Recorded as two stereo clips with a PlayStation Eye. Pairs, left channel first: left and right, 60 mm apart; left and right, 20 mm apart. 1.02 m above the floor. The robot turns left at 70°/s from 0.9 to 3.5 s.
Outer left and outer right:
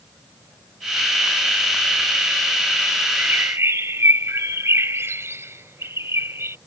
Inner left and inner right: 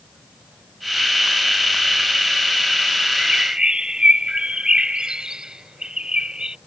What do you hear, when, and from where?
3.2 s a bird: 25° right (ahead or behind); by 6.6 s 45° right (ahead or behind)